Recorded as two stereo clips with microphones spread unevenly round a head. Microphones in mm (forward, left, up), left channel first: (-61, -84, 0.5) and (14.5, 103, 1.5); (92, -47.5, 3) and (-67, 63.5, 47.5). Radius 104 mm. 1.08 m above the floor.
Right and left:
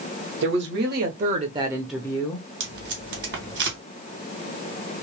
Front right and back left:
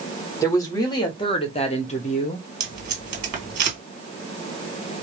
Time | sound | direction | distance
0.4 | a woman speaking | 35° left | 1.4 m
2.6 | tape being pulled | 100° left | 1.9 m